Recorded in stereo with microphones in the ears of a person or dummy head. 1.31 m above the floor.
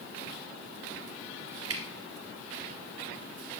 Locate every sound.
1.7 s dripping: 85° right, 1.1 m